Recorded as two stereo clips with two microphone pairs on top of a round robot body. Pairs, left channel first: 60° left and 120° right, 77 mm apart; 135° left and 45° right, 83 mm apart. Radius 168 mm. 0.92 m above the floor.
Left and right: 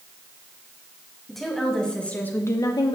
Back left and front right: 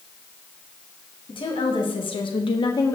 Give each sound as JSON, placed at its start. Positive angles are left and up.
{"t": 1.3, "sound": "a woman speaking", "azimuth_deg": 150, "distance_m": 2.0}